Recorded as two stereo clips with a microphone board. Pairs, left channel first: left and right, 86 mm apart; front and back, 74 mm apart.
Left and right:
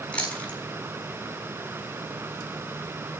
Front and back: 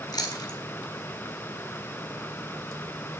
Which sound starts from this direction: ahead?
Chewing, at 0.1 s.